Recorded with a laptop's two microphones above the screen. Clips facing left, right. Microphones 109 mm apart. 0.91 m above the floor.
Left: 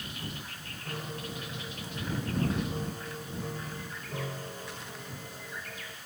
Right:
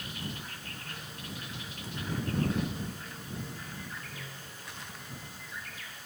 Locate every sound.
0.8 s a piano: 65° left (ahead or behind)